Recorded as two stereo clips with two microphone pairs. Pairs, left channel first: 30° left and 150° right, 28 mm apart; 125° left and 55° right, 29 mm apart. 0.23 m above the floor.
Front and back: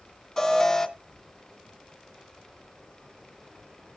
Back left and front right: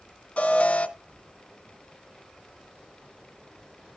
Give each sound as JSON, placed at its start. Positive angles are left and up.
{"t": 0.4, "sound": "an alarm", "azimuth_deg": 90, "distance_m": 1.7}